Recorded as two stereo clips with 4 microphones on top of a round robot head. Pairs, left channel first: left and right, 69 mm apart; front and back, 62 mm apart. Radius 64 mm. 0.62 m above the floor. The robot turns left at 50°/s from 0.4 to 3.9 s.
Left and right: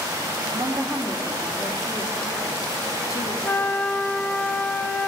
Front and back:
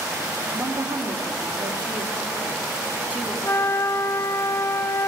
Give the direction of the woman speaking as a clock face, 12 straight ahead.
4 o'clock.